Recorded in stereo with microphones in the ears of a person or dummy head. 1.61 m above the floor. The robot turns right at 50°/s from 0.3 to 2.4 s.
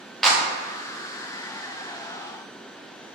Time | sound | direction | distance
0.2 | a clap | centre (ahead or behind) | 0.6 m